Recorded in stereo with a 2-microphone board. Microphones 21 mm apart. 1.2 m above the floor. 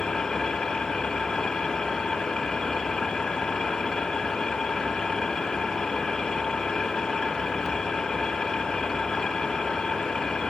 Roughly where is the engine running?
Left.